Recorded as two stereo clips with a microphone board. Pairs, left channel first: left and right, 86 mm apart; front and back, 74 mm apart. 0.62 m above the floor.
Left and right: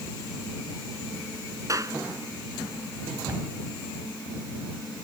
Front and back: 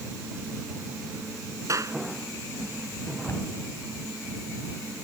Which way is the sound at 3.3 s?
45° right.